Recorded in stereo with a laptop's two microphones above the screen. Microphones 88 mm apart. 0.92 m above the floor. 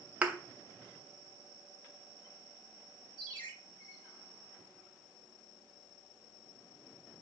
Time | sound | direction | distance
0.2 | a thud | 15° right (ahead or behind) | 0.6 m
3.2 | a ringtone | 80° left | 2.5 m